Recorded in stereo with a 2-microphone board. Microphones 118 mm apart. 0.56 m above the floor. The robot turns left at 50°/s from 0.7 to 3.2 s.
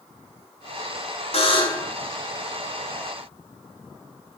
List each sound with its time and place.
1.3 s a buzzer: 55° left (ahead or behind), 4.5 m; by 1.9 s 25° left (ahead or behind), 4.5 m